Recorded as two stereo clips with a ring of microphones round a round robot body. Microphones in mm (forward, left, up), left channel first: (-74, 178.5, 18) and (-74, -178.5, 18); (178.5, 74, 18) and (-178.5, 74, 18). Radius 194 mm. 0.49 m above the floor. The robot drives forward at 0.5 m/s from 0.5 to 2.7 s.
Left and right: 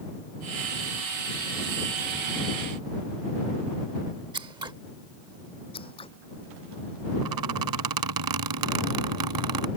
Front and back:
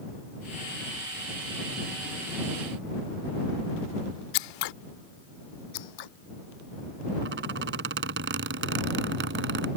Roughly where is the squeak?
Behind right.